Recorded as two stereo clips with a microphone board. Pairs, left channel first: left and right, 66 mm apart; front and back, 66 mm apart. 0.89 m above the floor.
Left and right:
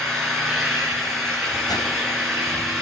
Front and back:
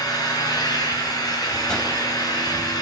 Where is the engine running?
Straight ahead, 9 m.